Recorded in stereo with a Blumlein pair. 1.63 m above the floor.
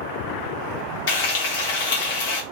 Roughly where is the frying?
Ahead left.